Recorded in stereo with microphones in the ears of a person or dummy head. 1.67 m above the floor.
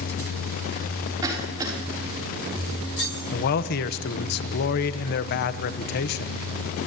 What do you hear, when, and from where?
1.2 s a cough: 20° right (ahead or behind), 5.5 m
3.3 s a man speaking: 55° left (ahead or behind), 1.2 m